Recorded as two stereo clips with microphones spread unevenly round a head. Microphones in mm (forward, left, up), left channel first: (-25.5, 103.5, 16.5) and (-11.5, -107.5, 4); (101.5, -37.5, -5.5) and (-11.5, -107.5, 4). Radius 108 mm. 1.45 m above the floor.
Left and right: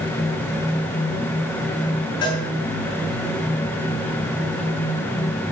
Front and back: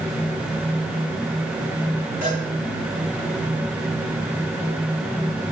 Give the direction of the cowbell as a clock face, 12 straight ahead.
7 o'clock.